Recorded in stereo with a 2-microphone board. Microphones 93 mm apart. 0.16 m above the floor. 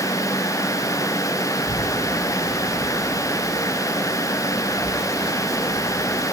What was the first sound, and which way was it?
A child speaking, 75° right (ahead or behind).